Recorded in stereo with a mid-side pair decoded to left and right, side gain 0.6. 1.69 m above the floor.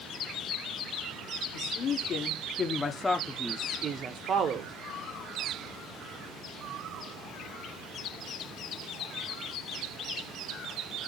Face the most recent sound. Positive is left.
turn(degrees=-55)